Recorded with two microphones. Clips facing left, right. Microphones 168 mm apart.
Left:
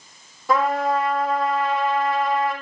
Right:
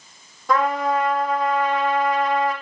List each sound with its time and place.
0.5 s a trumpet: 5° left (ahead or behind), 8.5 m